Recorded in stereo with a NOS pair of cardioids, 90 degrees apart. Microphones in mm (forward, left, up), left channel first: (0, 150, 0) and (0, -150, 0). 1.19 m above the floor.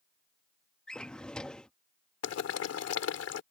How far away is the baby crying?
I don't hear a baby crying.